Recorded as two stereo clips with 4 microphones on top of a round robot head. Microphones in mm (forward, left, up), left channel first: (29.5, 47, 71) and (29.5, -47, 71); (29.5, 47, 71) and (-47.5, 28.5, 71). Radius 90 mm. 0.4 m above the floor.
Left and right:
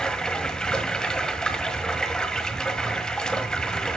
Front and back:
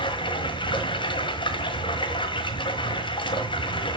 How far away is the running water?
About 1.7 m.